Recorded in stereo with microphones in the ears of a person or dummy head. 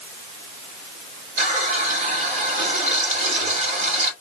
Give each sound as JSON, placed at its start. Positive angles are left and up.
{"t": 1.4, "sound": "a running tap", "side_deg": -45, "distance_m": 2.5}